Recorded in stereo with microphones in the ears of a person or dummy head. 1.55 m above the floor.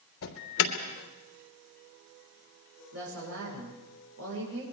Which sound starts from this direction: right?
A woman speaking, at 2.9 s.